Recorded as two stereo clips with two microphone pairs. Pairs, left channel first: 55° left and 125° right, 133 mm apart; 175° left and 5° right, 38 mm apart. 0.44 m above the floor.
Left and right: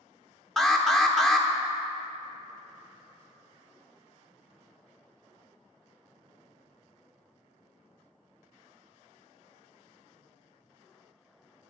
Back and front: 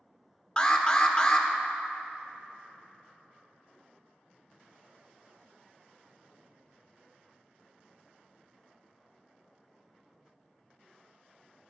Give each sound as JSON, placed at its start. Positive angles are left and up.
{"t": 0.6, "sound": "an alarm", "azimuth_deg": 140, "distance_m": 0.6}